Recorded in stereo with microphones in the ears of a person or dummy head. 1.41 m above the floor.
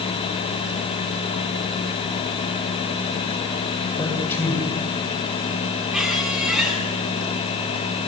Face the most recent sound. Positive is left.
turn(degrees=-5)  # may be behind; listen again after turning